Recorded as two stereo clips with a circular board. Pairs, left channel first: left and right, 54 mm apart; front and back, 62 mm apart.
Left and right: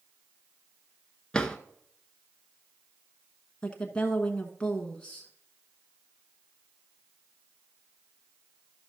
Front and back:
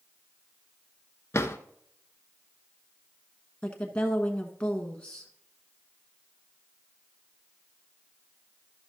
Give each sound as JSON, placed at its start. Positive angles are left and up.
{"t": 1.3, "sound": "a drawer", "azimuth_deg": 20, "distance_m": 0.7}
{"t": 3.6, "sound": "a woman speaking", "azimuth_deg": 45, "distance_m": 1.1}